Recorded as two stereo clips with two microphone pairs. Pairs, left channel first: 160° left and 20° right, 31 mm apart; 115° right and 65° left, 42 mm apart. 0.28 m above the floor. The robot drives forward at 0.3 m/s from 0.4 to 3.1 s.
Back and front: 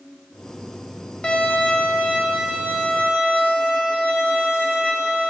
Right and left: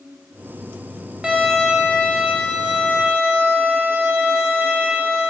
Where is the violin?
125° left, 0.6 m; by 5.3 s 155° left, 1.0 m.